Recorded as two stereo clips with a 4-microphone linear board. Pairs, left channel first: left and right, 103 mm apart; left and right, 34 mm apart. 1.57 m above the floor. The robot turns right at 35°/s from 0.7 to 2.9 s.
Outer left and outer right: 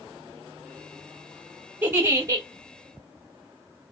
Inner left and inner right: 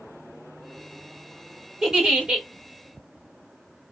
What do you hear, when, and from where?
1.8 s a giggle: 20° right (ahead or behind), 1.9 m; by 2.5 s 40° right (ahead or behind), 1.9 m